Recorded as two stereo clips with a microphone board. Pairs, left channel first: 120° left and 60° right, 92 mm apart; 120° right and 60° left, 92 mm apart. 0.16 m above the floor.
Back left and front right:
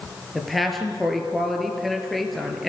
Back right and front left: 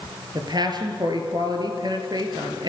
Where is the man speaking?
30° left, 3 m.